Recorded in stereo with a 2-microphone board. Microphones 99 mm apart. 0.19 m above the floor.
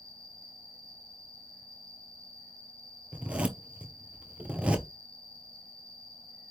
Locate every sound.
0.0 s an insect: 10° left (ahead or behind), 1.7 m
3.1 s a zipper: 10° right (ahead or behind), 0.8 m